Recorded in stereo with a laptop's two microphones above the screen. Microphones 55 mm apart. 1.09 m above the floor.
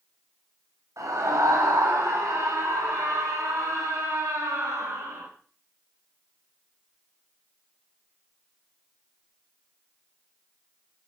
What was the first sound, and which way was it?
A scream, 80° right.